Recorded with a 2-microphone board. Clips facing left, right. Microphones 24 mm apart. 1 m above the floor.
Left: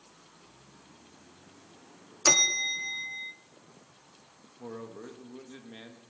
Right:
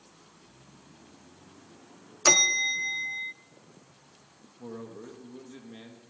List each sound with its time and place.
2.2 s a bell: 10° right (ahead or behind), 0.5 m
4.6 s a man speaking: 15° left (ahead or behind), 1.4 m